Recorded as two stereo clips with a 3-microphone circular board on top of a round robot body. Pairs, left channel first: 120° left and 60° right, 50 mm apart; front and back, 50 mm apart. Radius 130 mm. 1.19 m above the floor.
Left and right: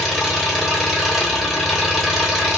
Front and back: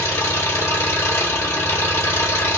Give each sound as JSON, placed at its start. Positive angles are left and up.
{"t": 0.0, "sound": "an engine running", "azimuth_deg": 30, "distance_m": 1.3}